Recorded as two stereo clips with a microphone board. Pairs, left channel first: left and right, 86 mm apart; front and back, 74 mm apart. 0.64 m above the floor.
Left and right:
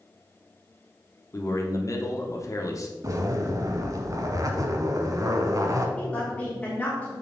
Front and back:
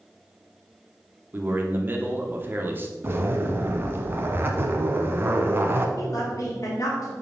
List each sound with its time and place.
1.3 s a man speaking: 125° left, 1.1 m
3.0 s a zipper: 125° right, 0.9 m
6.0 s a woman speaking: 20° left, 1.4 m